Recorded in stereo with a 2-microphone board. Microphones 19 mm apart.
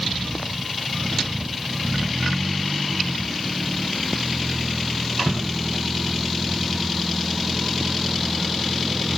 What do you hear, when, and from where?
Only background noise.